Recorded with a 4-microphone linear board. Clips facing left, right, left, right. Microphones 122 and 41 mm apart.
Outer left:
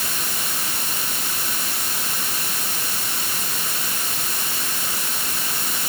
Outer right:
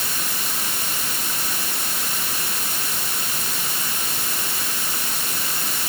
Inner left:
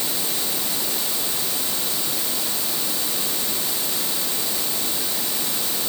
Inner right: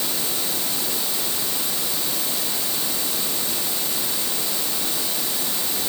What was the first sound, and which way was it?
Only background noise.